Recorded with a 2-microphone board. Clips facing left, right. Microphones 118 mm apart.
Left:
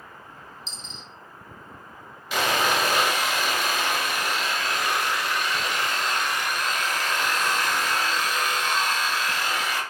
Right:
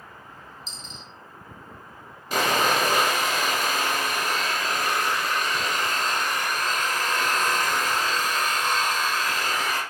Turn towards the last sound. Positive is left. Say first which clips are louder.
# right 1 dB
turn(degrees=-45)  # may be behind; listen again after turning